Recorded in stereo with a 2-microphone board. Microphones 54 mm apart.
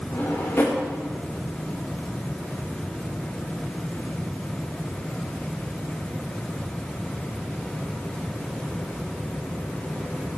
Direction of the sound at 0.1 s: 45° left (ahead or behind).